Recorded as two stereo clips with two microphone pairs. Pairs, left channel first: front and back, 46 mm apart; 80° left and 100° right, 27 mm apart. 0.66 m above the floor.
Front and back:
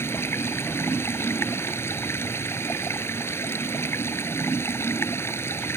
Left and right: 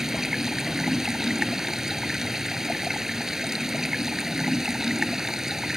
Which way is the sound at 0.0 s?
25° right.